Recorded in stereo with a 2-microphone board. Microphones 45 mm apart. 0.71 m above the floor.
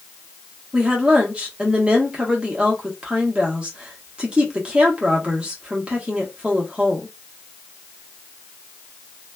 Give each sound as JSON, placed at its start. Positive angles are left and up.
{"t": 0.7, "sound": "a woman speaking", "side_deg": -25, "distance_m": 1.1}